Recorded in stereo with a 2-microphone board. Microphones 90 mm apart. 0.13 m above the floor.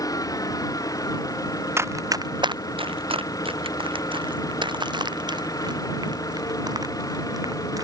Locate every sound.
0.0 s an engine running: 40° left (ahead or behind)
1.8 s running footsteps: 30° right (ahead or behind); by 7.8 s 45° right (ahead or behind)